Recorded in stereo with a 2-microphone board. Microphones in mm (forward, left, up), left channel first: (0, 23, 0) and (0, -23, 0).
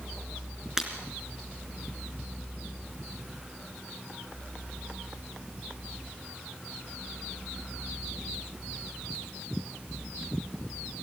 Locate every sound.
0.8 s breaking glass: 10° right (ahead or behind), 2.5 m